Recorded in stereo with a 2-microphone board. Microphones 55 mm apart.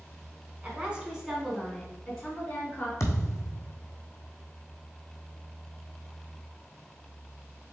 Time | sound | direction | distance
0.6 | a woman speaking | 25° right (ahead or behind) | 1.3 m
3.0 | a thud | 70° left (ahead or behind) | 1.2 m